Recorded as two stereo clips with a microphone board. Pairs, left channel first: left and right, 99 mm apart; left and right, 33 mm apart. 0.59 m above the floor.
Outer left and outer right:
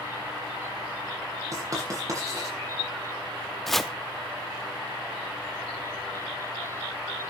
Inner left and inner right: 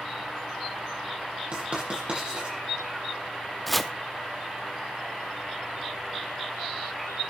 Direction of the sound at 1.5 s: 40° right (ahead or behind).